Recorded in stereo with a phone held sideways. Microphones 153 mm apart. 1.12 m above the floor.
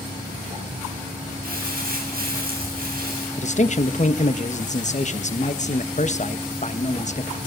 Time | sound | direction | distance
1.4 | crumpling | 75° right (ahead or behind) | 7.5 m
3.4 | a man speaking | 50° left (ahead or behind) | 1.3 m